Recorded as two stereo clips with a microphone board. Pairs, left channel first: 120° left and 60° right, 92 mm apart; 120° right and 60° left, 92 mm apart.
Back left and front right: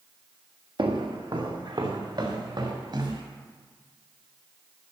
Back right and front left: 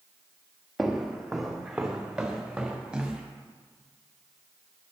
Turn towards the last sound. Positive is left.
turn(degrees=-25)